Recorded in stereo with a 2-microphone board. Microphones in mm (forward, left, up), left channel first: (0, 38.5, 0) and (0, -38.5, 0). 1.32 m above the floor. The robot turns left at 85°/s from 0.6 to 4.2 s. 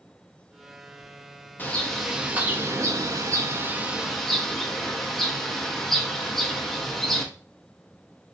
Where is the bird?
35° left, 0.7 m; by 7.3 s 175° left, 0.7 m.